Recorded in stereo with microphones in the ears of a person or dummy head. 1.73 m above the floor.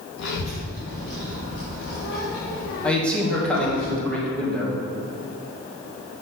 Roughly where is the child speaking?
Left.